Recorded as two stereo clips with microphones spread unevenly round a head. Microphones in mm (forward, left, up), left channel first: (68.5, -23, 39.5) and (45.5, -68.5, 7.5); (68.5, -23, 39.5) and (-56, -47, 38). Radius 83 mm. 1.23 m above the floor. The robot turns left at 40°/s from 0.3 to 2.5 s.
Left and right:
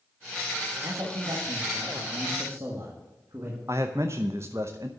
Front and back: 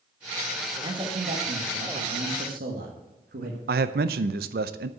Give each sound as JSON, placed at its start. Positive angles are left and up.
{"t": 0.8, "sound": "a man speaking", "azimuth_deg": -110, "distance_m": 1.6}
{"t": 3.7, "sound": "a man speaking", "azimuth_deg": 175, "distance_m": 0.6}